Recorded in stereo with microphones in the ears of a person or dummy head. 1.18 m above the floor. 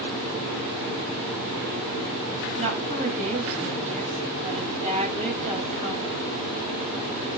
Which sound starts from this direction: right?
A woman speaking, at 2.6 s.